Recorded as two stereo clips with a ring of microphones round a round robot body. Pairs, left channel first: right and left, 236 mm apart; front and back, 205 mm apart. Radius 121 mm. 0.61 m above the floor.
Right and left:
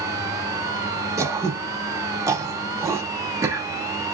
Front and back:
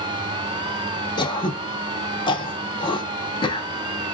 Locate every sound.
1.2 s throat clearing: 30° left, 0.6 m